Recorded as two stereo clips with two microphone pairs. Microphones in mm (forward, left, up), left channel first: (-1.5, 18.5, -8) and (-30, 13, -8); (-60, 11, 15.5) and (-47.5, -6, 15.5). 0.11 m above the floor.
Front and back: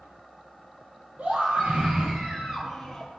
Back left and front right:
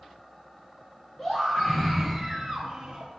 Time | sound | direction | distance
1.2 | a scream | 150° right | 3 m